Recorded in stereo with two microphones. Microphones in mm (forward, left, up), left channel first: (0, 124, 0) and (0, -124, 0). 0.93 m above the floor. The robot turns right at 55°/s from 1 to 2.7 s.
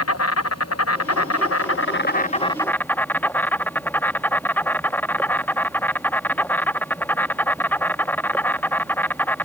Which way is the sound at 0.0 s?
80° left.